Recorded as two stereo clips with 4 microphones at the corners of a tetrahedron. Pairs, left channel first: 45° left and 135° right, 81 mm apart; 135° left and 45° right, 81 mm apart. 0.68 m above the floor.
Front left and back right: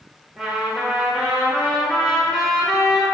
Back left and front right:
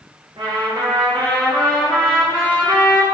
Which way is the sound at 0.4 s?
50° right.